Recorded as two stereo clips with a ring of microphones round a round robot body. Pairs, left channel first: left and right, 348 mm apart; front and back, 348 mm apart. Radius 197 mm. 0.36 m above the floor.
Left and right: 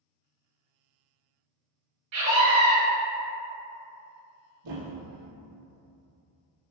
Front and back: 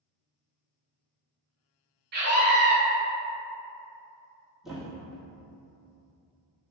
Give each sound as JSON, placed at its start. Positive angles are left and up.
{"t": 2.1, "sound": "a scream", "azimuth_deg": -125, "distance_m": 1.9}
{"t": 4.6, "sound": "a thud", "azimuth_deg": -90, "distance_m": 1.4}